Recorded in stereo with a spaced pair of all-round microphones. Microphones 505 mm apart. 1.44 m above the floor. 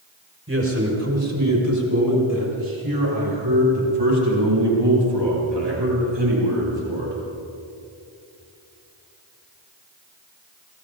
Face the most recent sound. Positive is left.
turn(degrees=-65)  # may be behind; listen again after turning